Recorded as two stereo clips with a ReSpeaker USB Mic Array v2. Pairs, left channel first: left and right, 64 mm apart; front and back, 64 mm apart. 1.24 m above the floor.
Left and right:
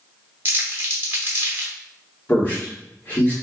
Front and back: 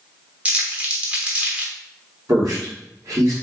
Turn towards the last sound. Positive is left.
turn(degrees=150)